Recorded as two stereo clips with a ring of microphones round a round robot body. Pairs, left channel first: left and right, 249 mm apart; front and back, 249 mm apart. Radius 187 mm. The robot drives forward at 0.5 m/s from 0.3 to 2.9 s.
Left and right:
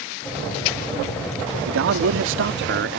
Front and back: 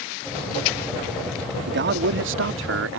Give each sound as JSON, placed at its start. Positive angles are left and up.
{"t": 1.7, "sound": "a man speaking", "azimuth_deg": -125}